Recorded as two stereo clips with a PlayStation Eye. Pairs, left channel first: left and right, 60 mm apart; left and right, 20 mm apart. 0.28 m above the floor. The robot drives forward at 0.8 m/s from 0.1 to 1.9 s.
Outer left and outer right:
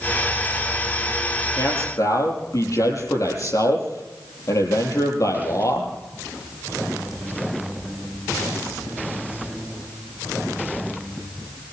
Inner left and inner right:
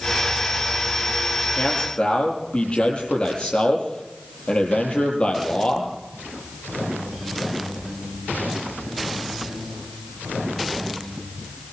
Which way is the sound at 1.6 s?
65° left (ahead or behind).